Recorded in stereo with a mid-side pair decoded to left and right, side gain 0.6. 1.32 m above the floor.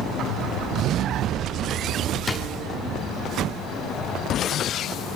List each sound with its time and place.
2.3 s a drawer: 25° left, 1.8 m